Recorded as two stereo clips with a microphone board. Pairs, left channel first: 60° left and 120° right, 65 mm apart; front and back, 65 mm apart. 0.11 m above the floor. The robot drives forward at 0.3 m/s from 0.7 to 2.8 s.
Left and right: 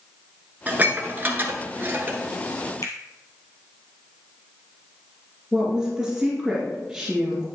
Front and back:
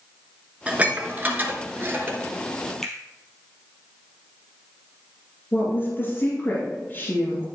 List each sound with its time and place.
0.7 s dishes clattering: 140° right, 1.1 m; by 2.2 s 160° right, 1.3 m
2.8 s a finger snap: 80° left, 1.8 m
5.5 s a woman speaking: 35° right, 2 m